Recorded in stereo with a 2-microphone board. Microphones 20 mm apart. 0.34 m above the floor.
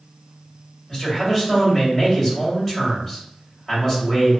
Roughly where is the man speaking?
Centre.